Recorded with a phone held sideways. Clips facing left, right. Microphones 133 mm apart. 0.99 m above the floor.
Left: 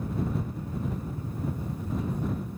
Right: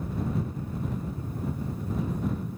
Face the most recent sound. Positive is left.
No sound to turn to.